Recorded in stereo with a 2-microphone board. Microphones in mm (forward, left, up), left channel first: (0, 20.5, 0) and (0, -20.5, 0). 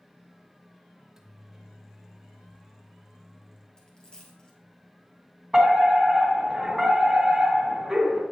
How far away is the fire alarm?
About 1.9 m.